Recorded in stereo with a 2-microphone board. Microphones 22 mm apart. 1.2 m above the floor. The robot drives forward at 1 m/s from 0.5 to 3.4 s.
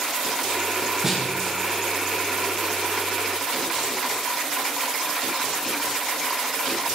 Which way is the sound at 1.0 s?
10° right (ahead or behind).